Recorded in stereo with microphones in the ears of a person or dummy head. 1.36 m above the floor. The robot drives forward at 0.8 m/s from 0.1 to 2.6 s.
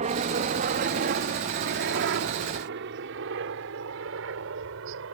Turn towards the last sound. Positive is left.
turn(degrees=-75)  # may be behind; listen again after turning